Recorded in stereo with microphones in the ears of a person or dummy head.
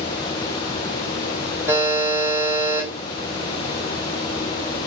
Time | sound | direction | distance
1.7 | a buzzer | 10° right (ahead or behind) | 5 m